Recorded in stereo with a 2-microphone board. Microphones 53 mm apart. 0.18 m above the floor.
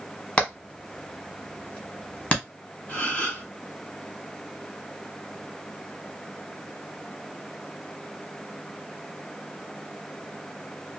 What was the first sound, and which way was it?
Hammering, 25° left (ahead or behind).